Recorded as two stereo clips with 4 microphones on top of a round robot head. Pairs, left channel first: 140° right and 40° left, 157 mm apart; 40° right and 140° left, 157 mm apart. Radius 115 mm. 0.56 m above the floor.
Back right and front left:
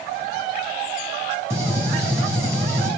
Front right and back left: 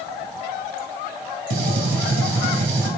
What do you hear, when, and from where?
1.5 s a gunshot: 115° left, 0.5 m